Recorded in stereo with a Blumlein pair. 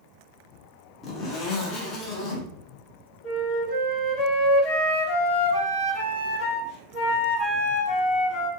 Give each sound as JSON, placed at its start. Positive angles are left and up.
{"t": 1.0, "sound": "a zipper", "azimuth_deg": 30, "distance_m": 0.7}
{"t": 3.2, "sound": "a flute", "azimuth_deg": 40, "distance_m": 1.1}